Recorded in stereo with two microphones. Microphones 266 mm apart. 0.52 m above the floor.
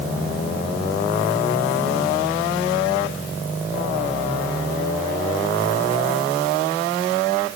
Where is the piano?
No piano in this recording.